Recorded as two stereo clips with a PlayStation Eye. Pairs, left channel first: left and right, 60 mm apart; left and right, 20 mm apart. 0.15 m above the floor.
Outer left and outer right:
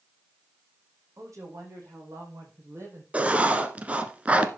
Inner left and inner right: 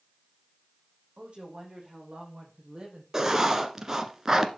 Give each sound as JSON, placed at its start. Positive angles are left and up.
{"t": 1.2, "sound": "a woman speaking", "side_deg": -60, "distance_m": 6.0}
{"t": 3.1, "sound": "writing", "side_deg": -25, "distance_m": 1.3}